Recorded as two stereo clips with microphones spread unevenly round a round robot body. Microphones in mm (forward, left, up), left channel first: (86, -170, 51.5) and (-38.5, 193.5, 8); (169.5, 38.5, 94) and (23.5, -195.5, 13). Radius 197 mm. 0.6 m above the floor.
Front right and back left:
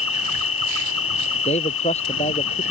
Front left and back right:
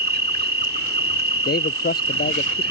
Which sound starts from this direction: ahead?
A man speaking, at 1.4 s.